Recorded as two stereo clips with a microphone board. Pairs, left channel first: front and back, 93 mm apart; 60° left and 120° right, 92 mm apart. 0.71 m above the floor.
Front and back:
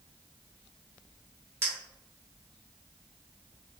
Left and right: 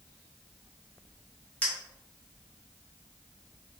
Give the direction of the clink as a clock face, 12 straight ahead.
8 o'clock.